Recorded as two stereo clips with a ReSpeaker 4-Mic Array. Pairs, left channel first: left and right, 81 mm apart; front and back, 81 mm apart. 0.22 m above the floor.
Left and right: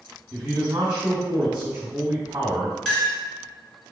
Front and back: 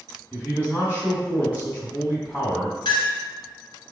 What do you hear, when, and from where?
0.3 s a man speaking: 40° right, 1.5 m
2.9 s a clink: 10° left, 1.8 m